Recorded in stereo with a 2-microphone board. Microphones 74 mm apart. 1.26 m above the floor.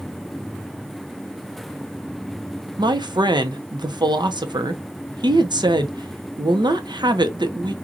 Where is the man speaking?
75° right (ahead or behind), 0.6 m.